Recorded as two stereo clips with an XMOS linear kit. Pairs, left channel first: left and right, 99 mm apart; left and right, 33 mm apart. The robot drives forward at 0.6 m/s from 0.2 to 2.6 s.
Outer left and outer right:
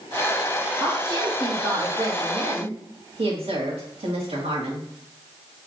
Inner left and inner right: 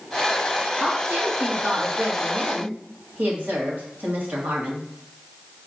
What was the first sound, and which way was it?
A woman speaking, 55° right (ahead or behind).